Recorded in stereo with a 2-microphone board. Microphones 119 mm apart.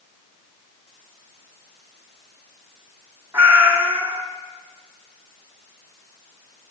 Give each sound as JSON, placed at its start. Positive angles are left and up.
{"t": 3.3, "sound": "a cat meowing", "side_deg": -20, "distance_m": 1.3}